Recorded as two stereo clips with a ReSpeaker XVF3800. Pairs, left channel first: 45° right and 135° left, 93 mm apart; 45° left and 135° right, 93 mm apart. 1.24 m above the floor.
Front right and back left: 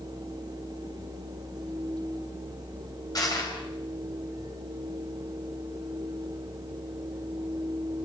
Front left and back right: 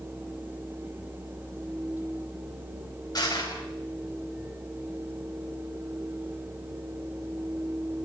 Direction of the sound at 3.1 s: Straight ahead.